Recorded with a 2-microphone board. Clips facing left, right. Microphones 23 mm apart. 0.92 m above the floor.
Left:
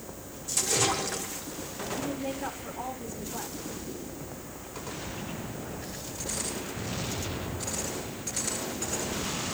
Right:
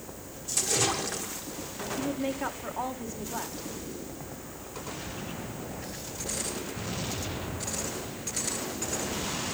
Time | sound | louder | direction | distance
0.5 | a splash | left 1 dB | centre (ahead or behind) | 1.5 m
2.0 | a woman speaking | right 4 dB | 45° right (ahead or behind) | 2 m